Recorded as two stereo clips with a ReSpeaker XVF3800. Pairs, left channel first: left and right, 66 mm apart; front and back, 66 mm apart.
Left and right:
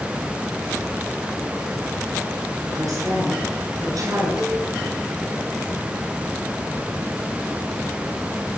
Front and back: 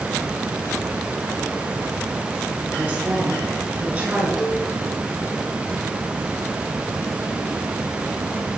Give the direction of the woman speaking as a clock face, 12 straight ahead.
4 o'clock.